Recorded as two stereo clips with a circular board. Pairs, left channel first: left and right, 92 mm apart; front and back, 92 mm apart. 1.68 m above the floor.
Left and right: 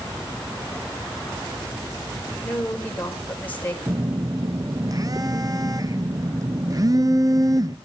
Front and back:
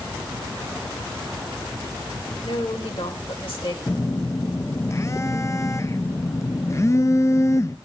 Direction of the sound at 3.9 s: 50° right.